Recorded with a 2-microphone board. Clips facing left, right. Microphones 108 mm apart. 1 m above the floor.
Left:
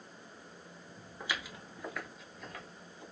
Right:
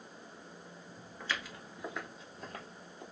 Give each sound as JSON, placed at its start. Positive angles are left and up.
{"t": 1.2, "sound": "footsteps", "side_deg": 15, "distance_m": 1.0}